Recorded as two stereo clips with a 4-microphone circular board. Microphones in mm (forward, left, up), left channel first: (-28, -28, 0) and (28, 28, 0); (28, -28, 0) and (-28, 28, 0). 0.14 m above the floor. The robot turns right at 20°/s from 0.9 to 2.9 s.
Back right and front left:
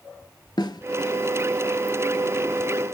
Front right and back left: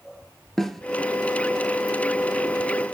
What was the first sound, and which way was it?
A snare drum, 130° right.